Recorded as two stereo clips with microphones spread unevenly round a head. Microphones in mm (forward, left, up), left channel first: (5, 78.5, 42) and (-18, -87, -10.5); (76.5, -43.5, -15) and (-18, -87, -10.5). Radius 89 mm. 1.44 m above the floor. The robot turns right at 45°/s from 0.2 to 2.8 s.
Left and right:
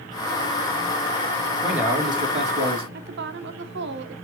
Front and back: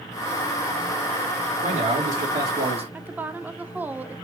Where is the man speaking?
175° left, 2.5 m; by 2.8 s 130° right, 2.5 m.